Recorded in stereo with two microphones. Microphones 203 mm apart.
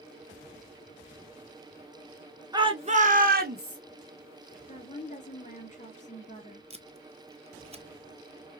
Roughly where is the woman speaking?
Left.